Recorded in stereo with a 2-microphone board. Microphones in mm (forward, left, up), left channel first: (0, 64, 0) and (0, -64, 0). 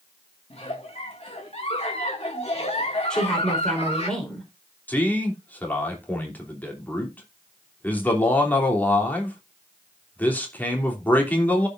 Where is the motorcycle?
No motorcycle in this recording.